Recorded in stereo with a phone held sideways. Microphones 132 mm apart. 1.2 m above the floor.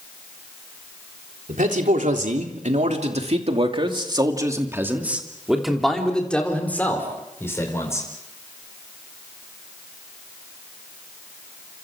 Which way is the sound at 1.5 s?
80° right.